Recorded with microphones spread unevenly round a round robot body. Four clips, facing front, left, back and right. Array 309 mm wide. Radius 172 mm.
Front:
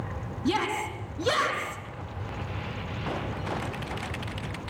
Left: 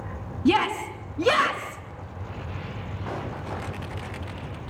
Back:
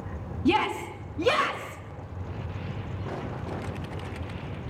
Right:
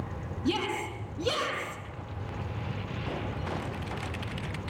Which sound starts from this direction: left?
A shout, at 0.5 s.